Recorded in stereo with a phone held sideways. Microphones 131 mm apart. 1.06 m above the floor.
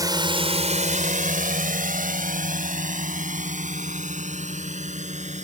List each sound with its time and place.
0.0 s a drone: 25° right (ahead or behind); by 5.4 s 60° right (ahead or behind)